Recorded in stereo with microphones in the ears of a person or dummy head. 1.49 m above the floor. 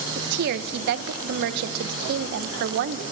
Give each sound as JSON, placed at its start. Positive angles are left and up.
{"t": 0.1, "sound": "a woman speaking", "side_deg": -55, "distance_m": 0.9}